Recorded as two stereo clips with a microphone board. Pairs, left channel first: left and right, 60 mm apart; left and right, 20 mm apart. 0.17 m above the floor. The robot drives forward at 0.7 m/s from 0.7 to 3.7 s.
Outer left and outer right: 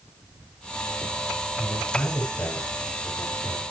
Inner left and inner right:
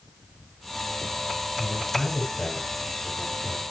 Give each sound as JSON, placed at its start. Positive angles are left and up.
{"t": 1.6, "sound": "a man speaking", "side_deg": 50, "distance_m": 7.0}